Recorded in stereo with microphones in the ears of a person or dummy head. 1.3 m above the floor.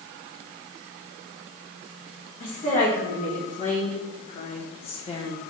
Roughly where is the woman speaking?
Left.